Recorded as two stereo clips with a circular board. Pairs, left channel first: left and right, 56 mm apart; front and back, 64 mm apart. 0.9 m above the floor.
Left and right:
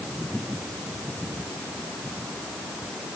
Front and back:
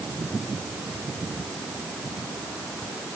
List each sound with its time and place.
Only background noise.